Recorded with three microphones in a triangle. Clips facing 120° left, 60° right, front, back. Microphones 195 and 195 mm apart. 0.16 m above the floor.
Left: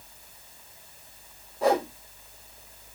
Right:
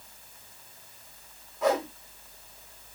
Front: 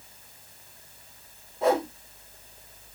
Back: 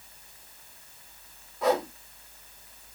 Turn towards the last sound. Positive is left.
turn(degrees=65)